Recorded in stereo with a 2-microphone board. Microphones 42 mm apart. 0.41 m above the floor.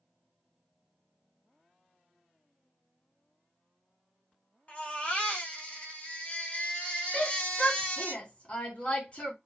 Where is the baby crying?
35° left (ahead or behind), 1.0 m.